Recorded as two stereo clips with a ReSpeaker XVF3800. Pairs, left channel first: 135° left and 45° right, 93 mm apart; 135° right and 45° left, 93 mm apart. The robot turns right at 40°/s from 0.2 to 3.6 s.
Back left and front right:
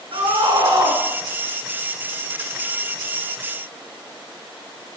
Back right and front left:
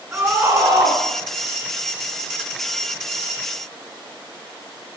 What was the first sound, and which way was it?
A scream, 25° right.